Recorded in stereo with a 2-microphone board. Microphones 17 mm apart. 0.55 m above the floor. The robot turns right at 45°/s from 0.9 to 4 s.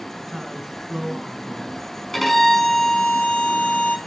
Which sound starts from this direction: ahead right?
A man speaking, at 0.2 s.